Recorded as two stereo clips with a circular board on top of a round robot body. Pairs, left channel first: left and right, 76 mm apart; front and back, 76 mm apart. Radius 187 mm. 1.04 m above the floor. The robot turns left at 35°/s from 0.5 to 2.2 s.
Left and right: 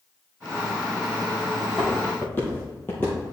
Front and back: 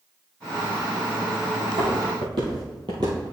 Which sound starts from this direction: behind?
Footsteps, at 1.6 s.